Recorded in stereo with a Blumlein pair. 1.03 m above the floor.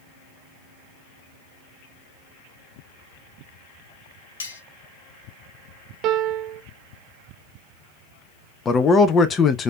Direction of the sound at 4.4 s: 70° left.